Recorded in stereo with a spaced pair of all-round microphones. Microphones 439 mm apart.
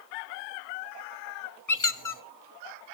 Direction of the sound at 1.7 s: 45° left (ahead or behind).